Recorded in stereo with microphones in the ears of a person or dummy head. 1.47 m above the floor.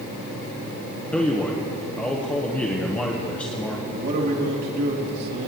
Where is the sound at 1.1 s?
5° left (ahead or behind), 1.0 m.